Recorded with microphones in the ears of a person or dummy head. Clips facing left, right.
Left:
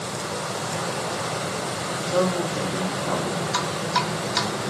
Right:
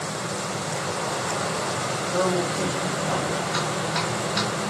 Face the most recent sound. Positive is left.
turn(degrees=85)